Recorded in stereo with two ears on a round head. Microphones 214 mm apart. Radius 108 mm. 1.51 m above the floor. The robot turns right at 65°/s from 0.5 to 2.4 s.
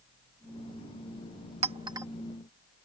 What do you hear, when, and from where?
1.6 s a clink: 30° right (ahead or behind); by 2.1 s 10° right (ahead or behind)